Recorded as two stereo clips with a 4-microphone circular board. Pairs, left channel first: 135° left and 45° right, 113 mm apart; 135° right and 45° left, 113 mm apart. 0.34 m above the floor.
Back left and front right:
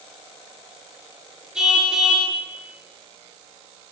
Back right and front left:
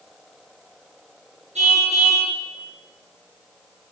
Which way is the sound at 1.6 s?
40° left.